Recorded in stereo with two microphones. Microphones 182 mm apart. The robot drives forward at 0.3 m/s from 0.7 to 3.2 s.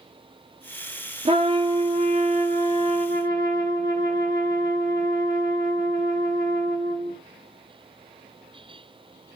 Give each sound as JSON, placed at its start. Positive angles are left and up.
{"t": 1.2, "sound": "a trumpet", "side_deg": -35, "distance_m": 1.2}